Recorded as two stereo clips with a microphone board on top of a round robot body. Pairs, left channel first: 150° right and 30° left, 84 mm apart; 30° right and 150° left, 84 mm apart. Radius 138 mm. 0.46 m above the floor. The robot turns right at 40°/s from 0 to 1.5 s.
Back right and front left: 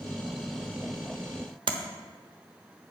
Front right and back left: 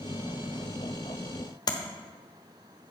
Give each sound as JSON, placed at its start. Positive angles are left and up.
{"t": 1.7, "sound": "tapping", "azimuth_deg": 10, "distance_m": 0.9}